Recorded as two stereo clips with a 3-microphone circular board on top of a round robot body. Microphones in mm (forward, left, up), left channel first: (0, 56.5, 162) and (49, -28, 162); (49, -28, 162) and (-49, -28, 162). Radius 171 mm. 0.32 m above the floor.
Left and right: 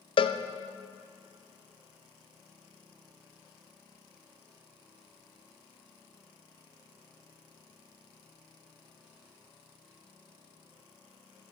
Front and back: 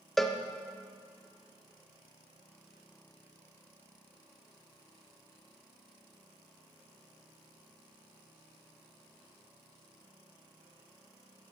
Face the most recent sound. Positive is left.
turn(degrees=90)